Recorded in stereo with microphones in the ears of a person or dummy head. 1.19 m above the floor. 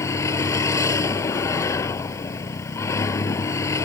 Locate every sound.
0.0 s a vehicle: 20° left (ahead or behind)